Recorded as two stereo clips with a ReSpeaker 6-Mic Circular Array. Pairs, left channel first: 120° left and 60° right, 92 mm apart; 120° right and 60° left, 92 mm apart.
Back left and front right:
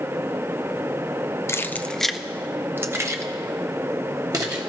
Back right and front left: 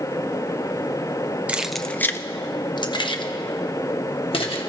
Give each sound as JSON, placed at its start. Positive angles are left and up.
{"t": 1.5, "sound": "keys jangling", "azimuth_deg": 120, "distance_m": 0.5}